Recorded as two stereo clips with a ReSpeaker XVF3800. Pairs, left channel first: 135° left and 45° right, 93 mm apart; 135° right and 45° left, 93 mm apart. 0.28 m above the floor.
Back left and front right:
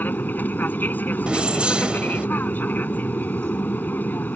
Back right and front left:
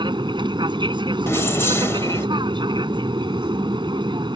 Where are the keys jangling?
110° right.